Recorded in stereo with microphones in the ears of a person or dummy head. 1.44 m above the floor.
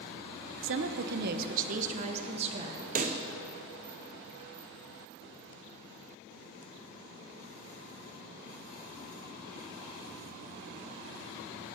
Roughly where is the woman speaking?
Right.